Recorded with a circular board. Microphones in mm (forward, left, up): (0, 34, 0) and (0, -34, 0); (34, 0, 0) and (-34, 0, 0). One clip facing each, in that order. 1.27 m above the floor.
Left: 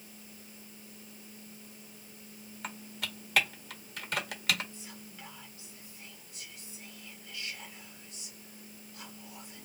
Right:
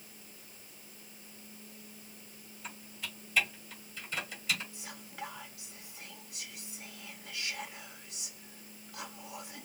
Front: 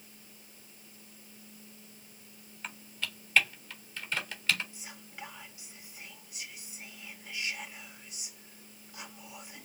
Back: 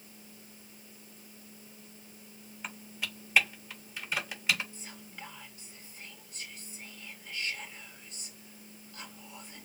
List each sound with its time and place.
2.6 s typing on a keyboard: 105° left, 1.5 m
4.7 s whispering: 80° right, 1.4 m